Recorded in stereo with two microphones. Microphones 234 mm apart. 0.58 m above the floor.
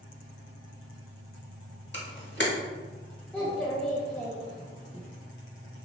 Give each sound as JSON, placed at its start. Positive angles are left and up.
{"t": 1.9, "sound": "a camera shutter", "side_deg": 50, "distance_m": 0.7}
{"t": 3.3, "sound": "a child speaking", "side_deg": 5, "distance_m": 0.5}